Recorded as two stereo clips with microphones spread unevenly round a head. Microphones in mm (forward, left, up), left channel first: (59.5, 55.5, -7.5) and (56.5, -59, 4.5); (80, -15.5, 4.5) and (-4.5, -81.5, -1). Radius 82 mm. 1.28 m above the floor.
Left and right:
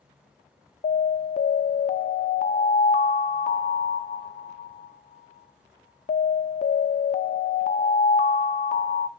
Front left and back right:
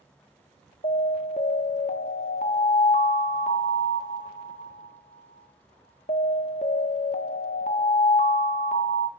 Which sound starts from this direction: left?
An alarm, at 0.8 s.